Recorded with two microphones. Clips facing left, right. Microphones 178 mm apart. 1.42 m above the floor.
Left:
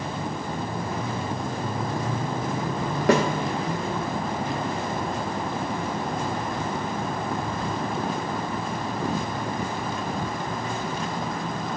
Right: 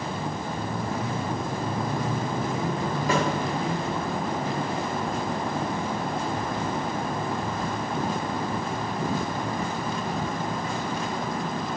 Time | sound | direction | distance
3.1 | a snare drum | 70° left (ahead or behind) | 2 m